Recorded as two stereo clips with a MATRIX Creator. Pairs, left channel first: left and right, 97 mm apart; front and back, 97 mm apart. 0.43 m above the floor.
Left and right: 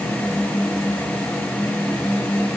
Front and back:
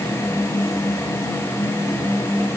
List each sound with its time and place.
Only background noise.